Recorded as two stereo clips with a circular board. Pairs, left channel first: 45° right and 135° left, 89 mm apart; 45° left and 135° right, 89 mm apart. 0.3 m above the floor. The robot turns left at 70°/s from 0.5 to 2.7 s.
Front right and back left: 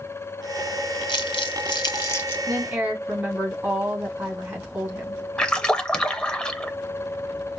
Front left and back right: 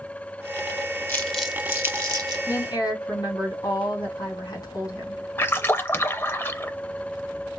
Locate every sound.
1.1 s crumpling: 25° right, 1.5 m; by 2.4 s 115° right, 1.5 m
2.5 s a woman speaking: 95° left, 2.5 m; by 5.2 s 80° left, 2.5 m
5.4 s a splash: 25° left, 0.6 m